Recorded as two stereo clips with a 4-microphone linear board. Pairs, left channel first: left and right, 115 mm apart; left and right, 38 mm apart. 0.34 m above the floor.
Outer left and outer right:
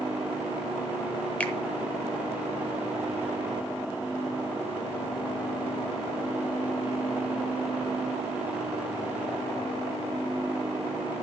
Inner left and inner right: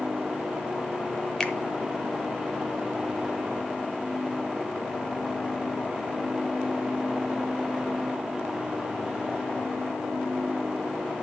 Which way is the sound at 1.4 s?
10° left (ahead or behind).